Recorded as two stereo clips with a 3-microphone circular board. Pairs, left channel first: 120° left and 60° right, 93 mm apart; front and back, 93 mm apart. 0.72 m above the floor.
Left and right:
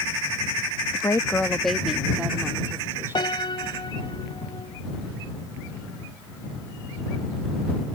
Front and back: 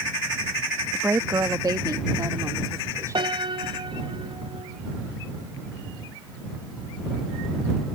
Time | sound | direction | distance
0.9 | a woman speaking | 115° left | ?
3.1 | a piano | 155° left | ?